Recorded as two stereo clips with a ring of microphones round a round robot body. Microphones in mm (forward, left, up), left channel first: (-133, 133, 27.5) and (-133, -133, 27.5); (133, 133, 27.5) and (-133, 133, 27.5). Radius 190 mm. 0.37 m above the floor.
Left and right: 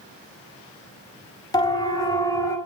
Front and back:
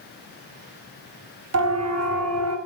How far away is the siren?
About 5 m.